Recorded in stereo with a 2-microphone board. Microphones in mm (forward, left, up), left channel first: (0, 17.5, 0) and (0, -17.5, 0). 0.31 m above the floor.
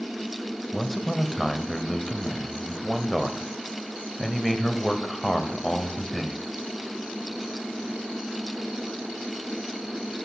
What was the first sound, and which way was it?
A man speaking, centre (ahead or behind).